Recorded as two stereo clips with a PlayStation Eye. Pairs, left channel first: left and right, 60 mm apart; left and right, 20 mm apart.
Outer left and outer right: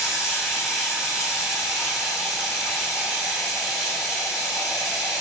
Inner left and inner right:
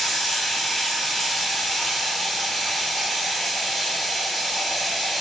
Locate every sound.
0.0 s running water: 5° right (ahead or behind), 1.4 m